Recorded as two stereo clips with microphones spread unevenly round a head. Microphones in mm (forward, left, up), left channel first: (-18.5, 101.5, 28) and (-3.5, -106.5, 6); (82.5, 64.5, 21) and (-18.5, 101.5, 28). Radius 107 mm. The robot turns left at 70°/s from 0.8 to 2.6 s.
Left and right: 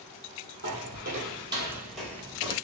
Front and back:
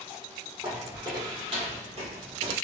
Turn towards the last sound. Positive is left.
turn(degrees=150)